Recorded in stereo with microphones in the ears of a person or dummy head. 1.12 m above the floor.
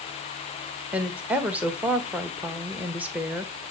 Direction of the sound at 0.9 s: 5° right (ahead or behind).